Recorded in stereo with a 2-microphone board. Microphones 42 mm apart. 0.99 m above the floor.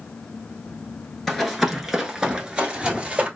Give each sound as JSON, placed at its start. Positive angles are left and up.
{"t": 1.3, "sound": "running footsteps", "side_deg": 5, "distance_m": 1.0}